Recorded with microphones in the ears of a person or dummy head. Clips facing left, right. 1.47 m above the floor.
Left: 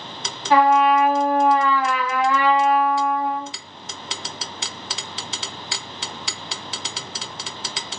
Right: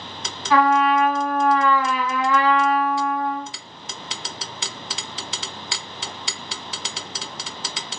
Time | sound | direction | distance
0.5 | a trumpet | 30° left (ahead or behind) | 2 m